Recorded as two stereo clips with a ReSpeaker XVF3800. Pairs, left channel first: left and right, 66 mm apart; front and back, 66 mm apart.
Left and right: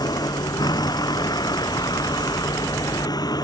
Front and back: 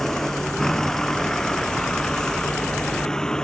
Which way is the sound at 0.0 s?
85° left.